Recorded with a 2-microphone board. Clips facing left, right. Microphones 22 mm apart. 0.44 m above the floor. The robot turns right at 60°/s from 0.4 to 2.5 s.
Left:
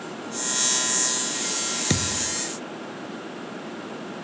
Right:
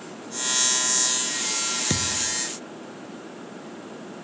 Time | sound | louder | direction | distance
1.9 | a thud | even | 20° left (ahead or behind) | ?